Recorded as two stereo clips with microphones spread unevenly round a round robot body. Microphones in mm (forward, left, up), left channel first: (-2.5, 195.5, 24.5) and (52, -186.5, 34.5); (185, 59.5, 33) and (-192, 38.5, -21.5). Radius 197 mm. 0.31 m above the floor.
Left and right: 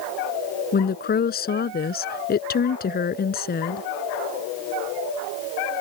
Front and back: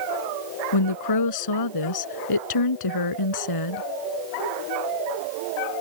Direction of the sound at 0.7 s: 30° left.